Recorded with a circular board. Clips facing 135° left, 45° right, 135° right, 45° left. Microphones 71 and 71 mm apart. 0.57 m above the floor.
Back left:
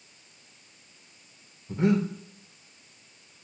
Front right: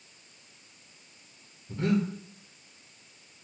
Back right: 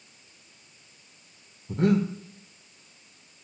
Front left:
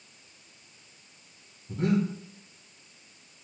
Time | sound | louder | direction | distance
1.7 | breathing | back left 3 dB, back right 3 dB | 160° right | 0.8 m